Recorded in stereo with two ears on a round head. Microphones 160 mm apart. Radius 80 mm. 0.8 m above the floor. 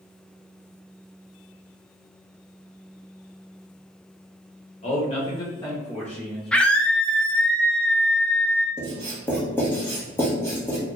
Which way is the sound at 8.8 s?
15° left (ahead or behind).